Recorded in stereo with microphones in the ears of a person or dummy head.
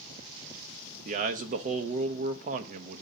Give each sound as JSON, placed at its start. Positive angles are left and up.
{"t": 1.1, "sound": "a man speaking", "side_deg": -35, "distance_m": 0.7}